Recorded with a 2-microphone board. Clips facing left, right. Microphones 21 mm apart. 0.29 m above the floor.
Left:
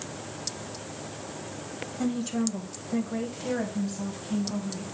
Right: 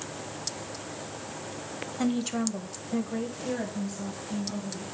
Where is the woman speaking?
35° right (ahead or behind), 1.1 m; by 4.8 s 45° left (ahead or behind), 2.5 m.